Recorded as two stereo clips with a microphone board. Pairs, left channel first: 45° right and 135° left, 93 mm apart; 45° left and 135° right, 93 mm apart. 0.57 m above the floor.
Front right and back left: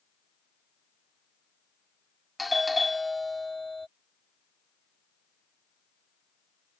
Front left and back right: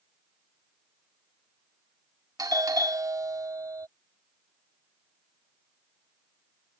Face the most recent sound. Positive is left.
turn(degrees=-135)